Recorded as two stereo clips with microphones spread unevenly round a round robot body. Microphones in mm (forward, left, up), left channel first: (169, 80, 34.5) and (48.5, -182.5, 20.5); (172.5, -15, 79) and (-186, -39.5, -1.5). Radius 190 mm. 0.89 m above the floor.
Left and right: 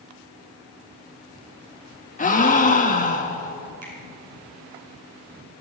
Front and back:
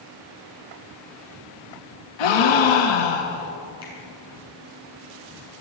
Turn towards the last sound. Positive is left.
turn(degrees=-100)